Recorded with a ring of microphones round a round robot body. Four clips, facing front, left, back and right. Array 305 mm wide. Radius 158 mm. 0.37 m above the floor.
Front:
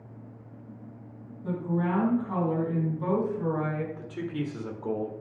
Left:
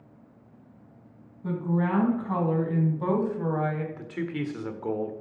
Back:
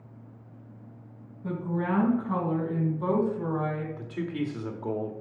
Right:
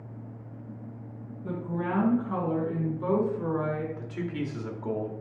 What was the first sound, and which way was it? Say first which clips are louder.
A woman speaking: left 4 dB, front 1 dB; 95° left.